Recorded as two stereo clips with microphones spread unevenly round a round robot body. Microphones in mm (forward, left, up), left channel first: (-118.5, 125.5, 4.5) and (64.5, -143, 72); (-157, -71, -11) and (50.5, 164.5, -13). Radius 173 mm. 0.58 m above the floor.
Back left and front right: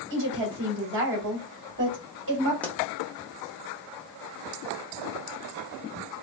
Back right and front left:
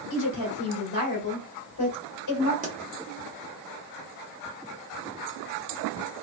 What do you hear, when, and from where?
0.1 s a woman speaking: 110° right, 1.7 m
2.6 s a pop: 75° left, 0.9 m